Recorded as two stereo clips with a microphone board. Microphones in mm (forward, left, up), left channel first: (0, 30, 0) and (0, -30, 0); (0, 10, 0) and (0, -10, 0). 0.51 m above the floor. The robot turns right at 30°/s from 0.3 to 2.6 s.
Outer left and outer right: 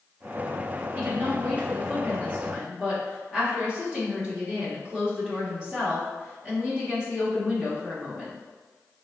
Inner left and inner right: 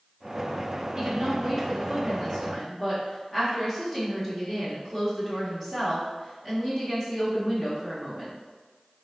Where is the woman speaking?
70° right, 1.1 m; by 8.3 s 20° right, 1.1 m.